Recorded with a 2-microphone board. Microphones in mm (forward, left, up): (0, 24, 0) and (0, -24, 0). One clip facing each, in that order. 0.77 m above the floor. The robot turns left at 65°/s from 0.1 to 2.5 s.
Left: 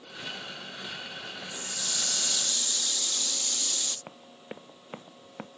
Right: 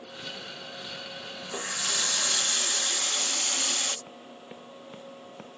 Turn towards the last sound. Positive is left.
turn(degrees=25)  # may be behind; listen again after turning